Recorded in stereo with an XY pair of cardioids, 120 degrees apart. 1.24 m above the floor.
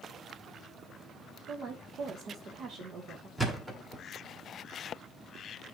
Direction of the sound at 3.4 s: 10° right.